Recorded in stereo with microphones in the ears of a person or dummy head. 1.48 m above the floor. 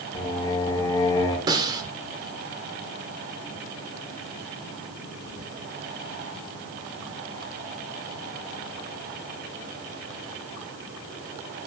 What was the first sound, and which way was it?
Singing, 30° left (ahead or behind).